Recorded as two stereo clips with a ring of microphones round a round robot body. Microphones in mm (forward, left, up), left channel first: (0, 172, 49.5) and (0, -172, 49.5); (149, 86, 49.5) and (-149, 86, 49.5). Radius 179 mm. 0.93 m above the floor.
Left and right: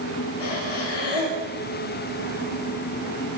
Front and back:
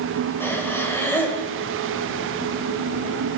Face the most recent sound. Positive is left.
turn(degrees=85)